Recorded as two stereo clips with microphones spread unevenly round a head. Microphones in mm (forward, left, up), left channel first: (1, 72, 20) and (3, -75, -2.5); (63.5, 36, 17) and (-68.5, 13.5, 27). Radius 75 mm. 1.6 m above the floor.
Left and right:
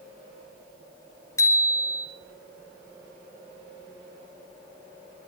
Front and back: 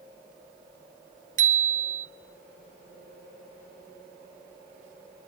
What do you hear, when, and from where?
1.4 s a bicycle bell: 160° left, 4 m